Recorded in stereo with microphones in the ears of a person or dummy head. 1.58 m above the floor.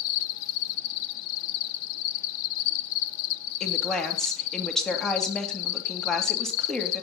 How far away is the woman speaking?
About 2.5 m.